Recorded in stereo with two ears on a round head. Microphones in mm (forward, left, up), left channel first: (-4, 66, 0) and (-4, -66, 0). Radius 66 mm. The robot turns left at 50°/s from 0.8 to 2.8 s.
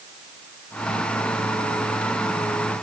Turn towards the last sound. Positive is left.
No sound to turn to.